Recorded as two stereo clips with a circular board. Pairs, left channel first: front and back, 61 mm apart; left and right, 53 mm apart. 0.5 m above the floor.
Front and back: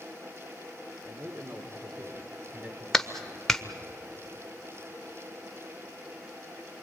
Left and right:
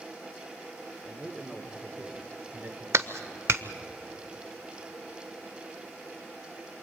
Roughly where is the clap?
Right.